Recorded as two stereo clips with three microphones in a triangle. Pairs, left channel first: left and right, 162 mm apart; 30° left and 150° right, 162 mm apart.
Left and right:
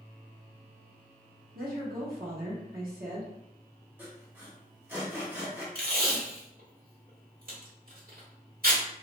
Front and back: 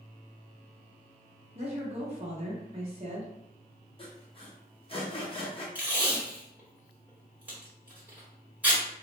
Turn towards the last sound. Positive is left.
turn(degrees=-70)